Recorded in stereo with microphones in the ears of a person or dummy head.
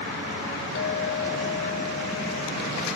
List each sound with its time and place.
0.8 s a clink: 60° left (ahead or behind), 1.0 m